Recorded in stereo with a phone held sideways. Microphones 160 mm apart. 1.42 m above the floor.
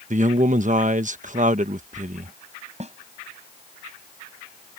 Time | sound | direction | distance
0.1 | a man speaking | 50° right (ahead or behind) | ?
2.8 | a snare drum | 45° right (ahead or behind) | ?